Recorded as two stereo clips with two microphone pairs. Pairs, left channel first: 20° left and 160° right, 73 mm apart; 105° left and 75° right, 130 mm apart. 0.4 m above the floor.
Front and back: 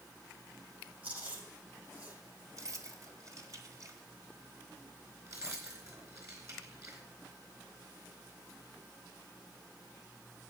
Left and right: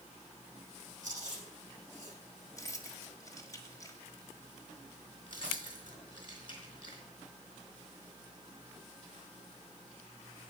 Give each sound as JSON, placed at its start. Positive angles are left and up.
{"t": 1.0, "sound": "chewing", "azimuth_deg": -95, "distance_m": 8.5}
{"t": 2.6, "sound": "keys jangling", "azimuth_deg": 165, "distance_m": 1.6}
{"t": 5.3, "sound": "keys jangling", "azimuth_deg": 155, "distance_m": 4.0}